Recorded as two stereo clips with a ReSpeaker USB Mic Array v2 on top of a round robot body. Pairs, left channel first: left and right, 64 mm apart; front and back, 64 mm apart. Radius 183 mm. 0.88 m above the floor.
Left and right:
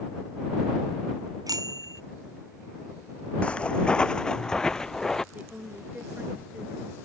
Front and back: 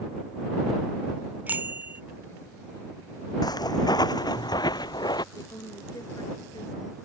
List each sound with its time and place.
1.5 s a bicycle bell: 115° right
3.4 s footsteps: 15° left; by 5.2 s 5° left
5.3 s a woman speaking: 25° right